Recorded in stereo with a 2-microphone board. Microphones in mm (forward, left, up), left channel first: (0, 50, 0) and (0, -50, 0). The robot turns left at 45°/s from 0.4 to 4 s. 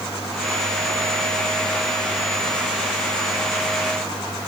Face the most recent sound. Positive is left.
No sound to turn to.